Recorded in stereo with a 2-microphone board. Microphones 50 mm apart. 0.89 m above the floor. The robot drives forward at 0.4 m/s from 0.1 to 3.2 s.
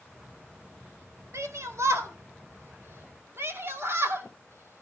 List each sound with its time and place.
1.3 s a shout: 70° right (ahead or behind), 1.8 m; by 4.8 s 50° right (ahead or behind), 2 m